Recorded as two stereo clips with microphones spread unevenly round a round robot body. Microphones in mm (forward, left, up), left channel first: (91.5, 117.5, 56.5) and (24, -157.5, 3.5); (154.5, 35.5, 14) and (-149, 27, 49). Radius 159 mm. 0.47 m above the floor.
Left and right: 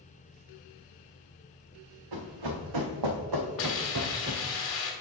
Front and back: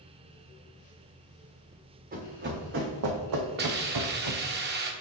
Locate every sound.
2.1 s running footsteps: 115° right, 1.9 m; by 4.5 s 175° right, 1.3 m
3.6 s a hiss: 125° left, 1.4 m